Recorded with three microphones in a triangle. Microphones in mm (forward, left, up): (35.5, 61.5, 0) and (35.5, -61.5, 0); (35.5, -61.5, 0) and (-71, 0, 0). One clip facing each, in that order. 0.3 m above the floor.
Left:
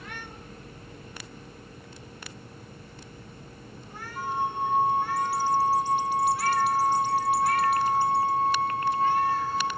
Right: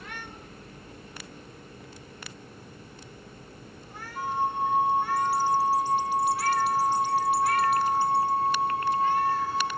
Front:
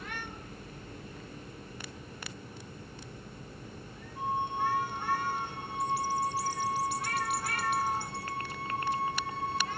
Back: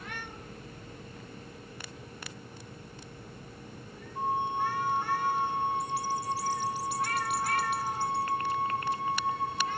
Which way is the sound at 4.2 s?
175° right.